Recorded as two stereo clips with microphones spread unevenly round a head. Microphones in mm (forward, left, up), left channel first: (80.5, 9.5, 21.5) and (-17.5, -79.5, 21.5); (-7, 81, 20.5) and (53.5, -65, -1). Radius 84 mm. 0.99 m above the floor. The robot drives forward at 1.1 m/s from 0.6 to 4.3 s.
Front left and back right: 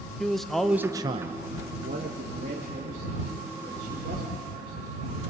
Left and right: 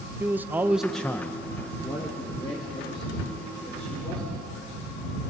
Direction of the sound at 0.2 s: 45° right.